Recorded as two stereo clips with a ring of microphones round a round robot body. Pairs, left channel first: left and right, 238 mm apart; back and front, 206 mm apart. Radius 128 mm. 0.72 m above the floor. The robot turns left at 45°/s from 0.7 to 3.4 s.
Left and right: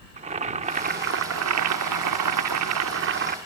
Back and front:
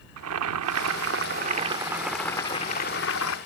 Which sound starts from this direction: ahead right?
Boiling, at 0.2 s.